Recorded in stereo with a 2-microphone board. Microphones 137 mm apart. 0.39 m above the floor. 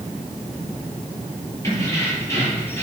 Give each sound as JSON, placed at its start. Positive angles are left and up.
{"t": 1.6, "sound": "keys jangling", "side_deg": 20, "distance_m": 7.5}